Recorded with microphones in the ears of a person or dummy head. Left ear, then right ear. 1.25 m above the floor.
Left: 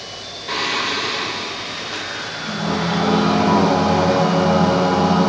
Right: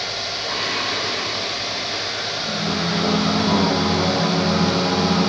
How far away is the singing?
About 0.6 m.